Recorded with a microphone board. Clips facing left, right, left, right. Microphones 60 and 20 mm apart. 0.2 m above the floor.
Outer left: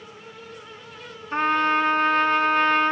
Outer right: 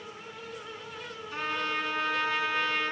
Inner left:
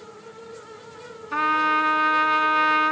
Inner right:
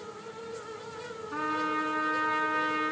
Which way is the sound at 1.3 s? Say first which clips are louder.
Outer left 11 dB, inner left 10 dB; 50° left (ahead or behind).